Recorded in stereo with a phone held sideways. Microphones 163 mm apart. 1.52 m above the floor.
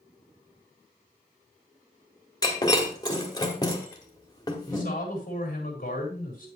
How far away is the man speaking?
About 4 m.